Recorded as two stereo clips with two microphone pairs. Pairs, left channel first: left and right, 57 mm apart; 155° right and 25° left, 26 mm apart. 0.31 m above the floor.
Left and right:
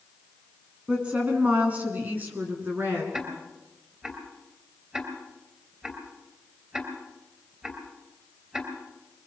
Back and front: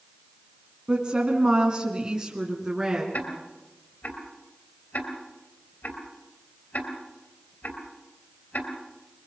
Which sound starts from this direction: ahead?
A woman speaking, at 0.9 s.